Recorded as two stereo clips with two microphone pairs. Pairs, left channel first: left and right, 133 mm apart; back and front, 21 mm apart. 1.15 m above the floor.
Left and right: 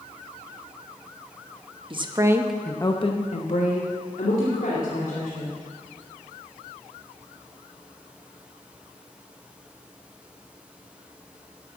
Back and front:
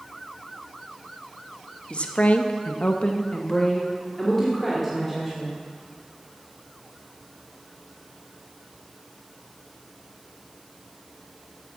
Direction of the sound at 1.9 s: 145° right.